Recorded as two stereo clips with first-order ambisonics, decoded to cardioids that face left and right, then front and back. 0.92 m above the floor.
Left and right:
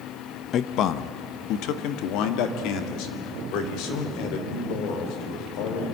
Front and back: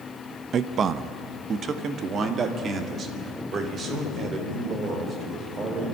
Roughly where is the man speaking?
Behind left.